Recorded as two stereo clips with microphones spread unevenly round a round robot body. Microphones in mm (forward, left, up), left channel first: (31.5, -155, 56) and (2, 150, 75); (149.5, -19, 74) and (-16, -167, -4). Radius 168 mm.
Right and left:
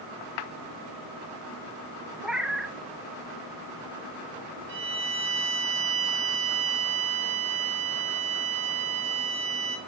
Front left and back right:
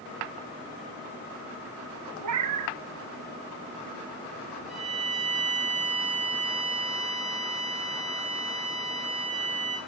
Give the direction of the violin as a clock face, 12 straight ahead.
7 o'clock.